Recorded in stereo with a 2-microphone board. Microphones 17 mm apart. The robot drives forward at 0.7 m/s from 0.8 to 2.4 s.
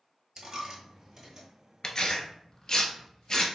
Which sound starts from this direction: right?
A dropped coin, at 0.4 s.